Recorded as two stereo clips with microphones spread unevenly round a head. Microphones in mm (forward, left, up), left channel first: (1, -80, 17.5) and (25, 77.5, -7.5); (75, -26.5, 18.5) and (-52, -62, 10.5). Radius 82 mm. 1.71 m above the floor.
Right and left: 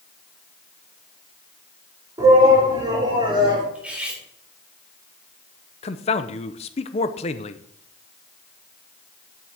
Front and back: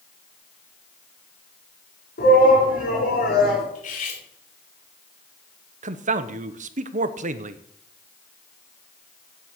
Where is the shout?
10° left, 6 m; by 3.6 s 20° left, 6 m.